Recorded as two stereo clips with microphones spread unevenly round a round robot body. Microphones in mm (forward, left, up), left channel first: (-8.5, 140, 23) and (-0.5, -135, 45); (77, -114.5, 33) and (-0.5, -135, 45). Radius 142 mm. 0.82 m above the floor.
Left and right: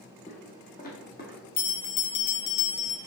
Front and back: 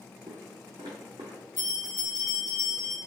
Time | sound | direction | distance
0.3 | footsteps | 155° left | 1.5 m
1.6 | a bell | 75° left | 1.3 m